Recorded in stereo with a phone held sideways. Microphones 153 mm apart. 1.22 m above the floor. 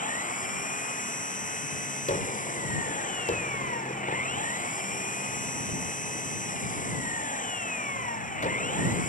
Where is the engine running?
60° left (ahead or behind).